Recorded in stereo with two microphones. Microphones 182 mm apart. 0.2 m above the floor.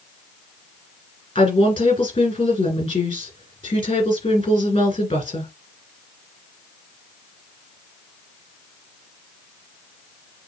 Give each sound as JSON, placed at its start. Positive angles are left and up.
{"t": 1.4, "sound": "a woman speaking", "side_deg": 25, "distance_m": 2.0}